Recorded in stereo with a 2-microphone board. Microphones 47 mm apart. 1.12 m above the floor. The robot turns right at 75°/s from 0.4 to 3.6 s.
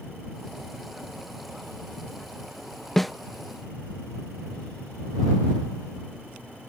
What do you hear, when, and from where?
3.0 s a snare drum: 10° left (ahead or behind); by 3.1 s 5° right (ahead or behind)